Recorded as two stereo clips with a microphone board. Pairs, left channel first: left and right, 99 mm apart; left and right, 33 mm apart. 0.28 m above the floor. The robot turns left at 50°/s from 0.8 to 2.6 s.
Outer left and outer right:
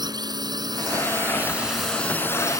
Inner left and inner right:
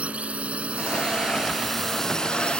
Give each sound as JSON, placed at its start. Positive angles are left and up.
{"t": 0.0, "sound": "a drone", "azimuth_deg": -130}